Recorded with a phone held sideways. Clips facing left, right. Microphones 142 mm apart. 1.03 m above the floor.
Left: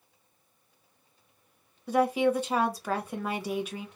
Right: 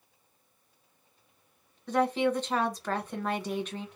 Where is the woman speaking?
10° left (ahead or behind), 0.9 m.